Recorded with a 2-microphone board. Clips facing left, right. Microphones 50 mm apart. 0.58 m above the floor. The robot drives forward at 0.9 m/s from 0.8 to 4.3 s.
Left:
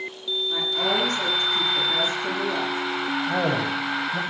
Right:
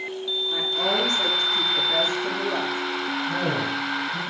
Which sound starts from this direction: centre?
A woman speaking, at 0.5 s.